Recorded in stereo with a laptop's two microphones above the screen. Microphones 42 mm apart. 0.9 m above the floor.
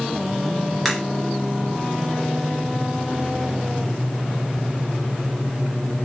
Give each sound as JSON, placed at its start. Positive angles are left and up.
{"t": 0.8, "sound": "a crack", "side_deg": 0, "distance_m": 1.8}